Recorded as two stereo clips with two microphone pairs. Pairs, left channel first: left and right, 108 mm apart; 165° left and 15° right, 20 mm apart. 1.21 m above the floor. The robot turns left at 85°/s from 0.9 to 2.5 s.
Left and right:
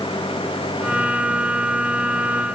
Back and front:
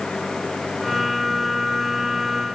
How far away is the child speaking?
No child speaking in this recording.